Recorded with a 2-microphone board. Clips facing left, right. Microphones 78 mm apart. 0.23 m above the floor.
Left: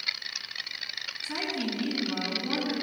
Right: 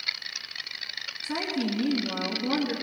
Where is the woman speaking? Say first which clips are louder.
Right 3 dB; 10° right (ahead or behind), 2.5 m.